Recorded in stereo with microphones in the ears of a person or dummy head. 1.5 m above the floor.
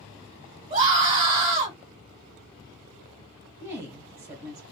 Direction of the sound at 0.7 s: 30° right (ahead or behind).